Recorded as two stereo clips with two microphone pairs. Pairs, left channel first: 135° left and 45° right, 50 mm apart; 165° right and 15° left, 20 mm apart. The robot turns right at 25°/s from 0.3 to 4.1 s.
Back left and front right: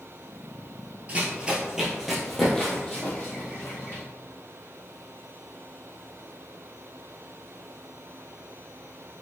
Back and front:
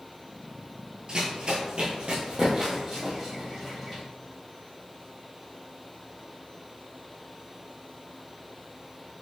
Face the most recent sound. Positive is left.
turn(degrees=100)